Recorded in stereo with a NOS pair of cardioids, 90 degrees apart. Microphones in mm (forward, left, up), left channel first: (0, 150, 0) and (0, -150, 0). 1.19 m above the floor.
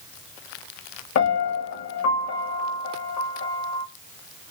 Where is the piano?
65° left, 1.0 m.